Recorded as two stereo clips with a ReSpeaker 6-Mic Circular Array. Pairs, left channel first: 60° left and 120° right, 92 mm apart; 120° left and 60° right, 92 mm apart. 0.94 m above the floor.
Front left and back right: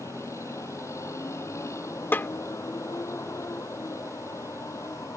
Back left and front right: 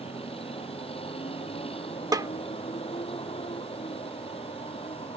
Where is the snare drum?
10° right.